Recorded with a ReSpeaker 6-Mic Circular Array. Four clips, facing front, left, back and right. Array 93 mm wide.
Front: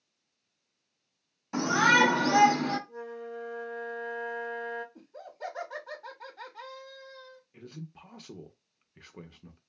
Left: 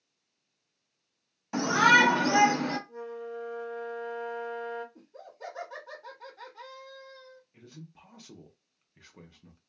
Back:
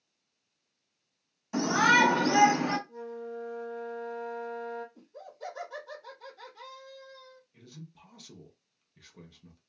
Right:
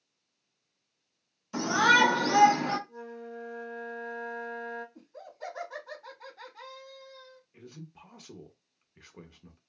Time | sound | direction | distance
1.5 | a shout | 75° left | 1.7 m
2.9 | a flute | 40° left | 1.3 m
5.0 | laughter | 5° left | 1.3 m
7.5 | a man speaking | 10° right | 0.6 m